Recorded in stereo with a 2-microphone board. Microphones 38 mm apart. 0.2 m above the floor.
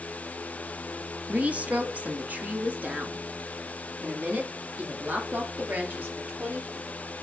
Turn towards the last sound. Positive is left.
turn(degrees=-50)  # may be behind; listen again after turning